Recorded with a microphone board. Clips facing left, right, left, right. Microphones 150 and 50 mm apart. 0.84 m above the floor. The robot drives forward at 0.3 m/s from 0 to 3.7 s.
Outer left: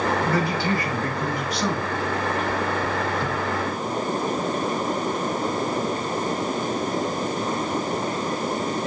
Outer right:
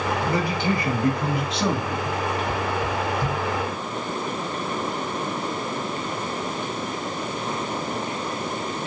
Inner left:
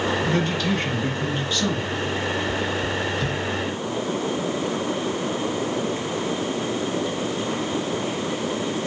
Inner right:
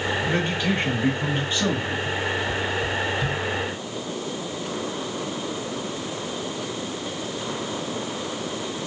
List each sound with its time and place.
0.2 s a man speaking: 20° right (ahead or behind), 1.8 m; by 2.0 s 25° right (ahead or behind), 1.3 m